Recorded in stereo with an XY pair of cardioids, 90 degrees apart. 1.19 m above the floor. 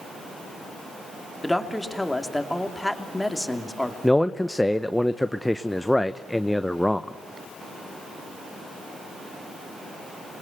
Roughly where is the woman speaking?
Ahead.